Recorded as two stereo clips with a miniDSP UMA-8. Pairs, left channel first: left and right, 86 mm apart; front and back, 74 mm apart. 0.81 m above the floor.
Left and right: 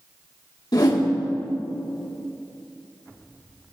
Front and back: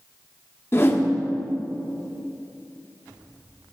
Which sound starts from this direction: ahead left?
A whoosh, at 0.7 s.